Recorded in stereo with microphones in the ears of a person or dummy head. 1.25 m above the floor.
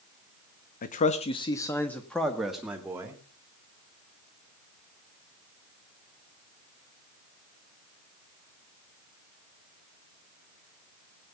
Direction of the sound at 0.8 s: 45° left (ahead or behind).